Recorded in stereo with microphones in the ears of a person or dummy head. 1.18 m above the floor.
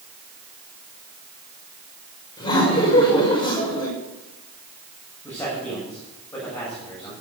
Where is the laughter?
25° left (ahead or behind), 5.5 m.